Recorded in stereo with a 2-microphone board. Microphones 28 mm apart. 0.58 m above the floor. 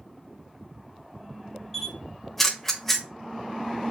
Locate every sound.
1.7 s a camera shutter: 10° left (ahead or behind), 1.0 m